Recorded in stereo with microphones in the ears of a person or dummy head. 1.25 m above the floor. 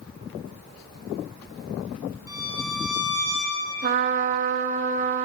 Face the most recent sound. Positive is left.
turn(degrees=-45)  # may be behind; listen again after turning